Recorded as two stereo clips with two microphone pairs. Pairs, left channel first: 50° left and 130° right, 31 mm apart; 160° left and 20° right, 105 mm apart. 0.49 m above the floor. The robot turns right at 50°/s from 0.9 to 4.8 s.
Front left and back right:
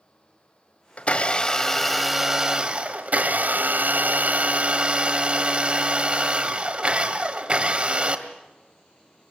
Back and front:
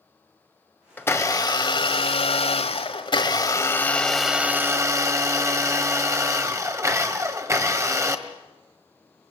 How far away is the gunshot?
I don't hear a gunshot.